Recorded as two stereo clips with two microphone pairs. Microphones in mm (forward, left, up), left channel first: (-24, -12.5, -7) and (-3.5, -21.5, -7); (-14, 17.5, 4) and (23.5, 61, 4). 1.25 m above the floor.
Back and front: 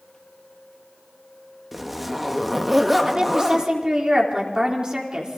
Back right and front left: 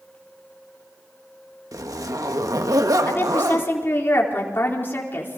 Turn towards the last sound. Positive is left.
turn(degrees=-80)